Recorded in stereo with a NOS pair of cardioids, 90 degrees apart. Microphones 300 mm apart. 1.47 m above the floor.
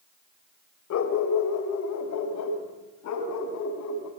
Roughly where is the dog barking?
Ahead left.